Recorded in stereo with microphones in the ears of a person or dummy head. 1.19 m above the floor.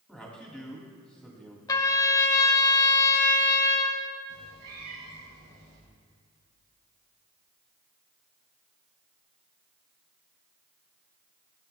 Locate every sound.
0.1 s a man speaking: centre (ahead or behind), 2.5 m
1.7 s a trumpet: 20° left (ahead or behind), 1.7 m
4.3 s a cat meowing: 80° right, 5 m